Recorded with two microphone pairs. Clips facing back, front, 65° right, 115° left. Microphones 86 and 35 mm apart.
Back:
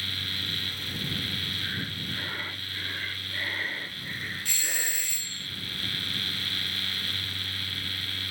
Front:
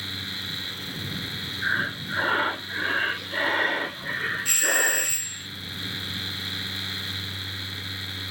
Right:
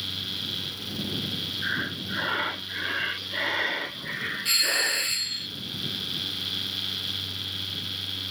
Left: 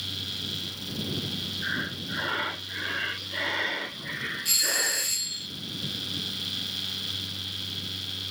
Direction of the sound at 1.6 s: 15° left.